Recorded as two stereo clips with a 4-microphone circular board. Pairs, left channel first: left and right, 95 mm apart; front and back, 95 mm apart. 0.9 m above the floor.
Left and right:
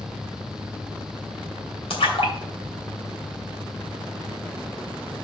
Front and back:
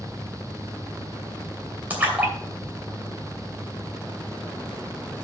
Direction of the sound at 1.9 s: 105° left.